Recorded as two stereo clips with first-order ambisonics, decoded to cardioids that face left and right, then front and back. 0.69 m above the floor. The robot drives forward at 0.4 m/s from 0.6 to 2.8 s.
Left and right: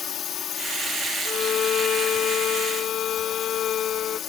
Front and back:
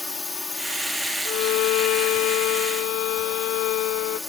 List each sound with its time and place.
0.0 s a drone: 65° left; by 4.3 s 75° left
1.2 s a violin: 30° left; by 4.2 s 35° left